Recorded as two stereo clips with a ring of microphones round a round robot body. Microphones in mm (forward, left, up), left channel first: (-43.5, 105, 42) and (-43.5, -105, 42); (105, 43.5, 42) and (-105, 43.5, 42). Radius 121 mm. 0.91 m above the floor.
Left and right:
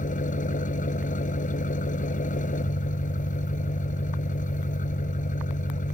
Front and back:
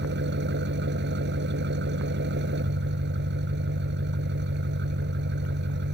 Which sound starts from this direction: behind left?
An engine running, at 0.0 s.